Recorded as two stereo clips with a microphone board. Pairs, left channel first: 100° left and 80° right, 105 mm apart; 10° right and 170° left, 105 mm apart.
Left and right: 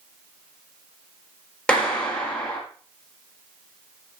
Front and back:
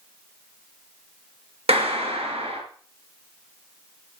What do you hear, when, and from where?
1.7 s a clap: straight behind, 3 m